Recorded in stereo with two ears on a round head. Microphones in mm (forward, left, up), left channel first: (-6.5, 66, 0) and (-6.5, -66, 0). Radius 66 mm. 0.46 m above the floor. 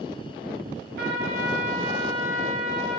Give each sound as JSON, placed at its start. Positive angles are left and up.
{"t": 1.0, "sound": "a trumpet", "side_deg": -70, "distance_m": 5.5}